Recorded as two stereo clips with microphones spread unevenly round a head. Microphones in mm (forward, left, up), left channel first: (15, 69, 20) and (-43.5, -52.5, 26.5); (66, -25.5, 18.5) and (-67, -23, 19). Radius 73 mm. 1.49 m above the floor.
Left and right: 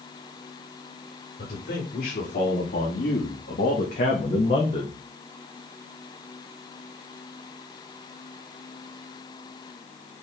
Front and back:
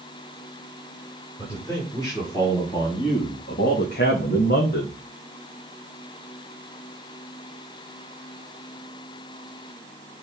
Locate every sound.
1.4 s a man speaking: 75° left, 5 m; by 4.9 s straight ahead, 2.5 m